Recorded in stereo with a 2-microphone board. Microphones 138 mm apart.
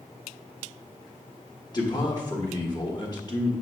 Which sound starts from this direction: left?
A man speaking, at 1.7 s.